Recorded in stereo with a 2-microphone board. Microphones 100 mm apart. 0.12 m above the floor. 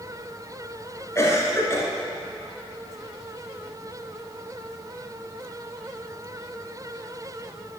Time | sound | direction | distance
1.1 | a cough | 25° left (ahead or behind) | 1.7 m